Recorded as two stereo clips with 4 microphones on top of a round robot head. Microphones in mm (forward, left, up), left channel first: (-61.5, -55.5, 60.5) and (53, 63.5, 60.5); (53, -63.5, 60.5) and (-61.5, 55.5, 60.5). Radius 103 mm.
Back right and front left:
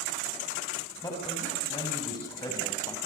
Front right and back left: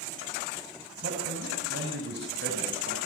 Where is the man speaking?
155° left, 6 m.